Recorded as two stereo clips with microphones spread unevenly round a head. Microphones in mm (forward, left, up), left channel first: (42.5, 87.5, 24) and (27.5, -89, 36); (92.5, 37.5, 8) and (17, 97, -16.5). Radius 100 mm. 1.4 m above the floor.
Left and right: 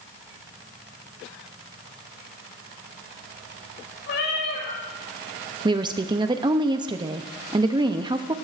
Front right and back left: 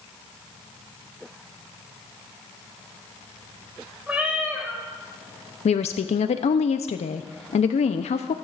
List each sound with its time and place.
4.1 s a cat meowing: 65° left, 7.5 m
5.7 s a woman speaking: 25° right, 0.6 m